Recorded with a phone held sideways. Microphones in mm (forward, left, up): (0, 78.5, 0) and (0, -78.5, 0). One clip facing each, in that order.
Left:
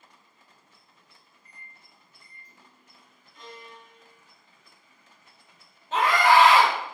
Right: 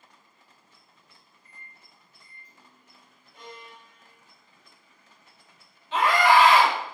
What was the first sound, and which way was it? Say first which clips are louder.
A microwave: even; 50° left (ahead or behind).